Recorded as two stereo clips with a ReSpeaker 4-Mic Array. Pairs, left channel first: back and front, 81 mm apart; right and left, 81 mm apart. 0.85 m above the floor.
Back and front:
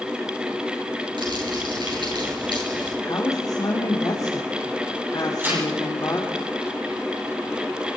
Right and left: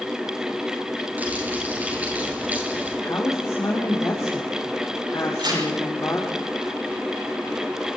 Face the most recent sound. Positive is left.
turn(degrees=65)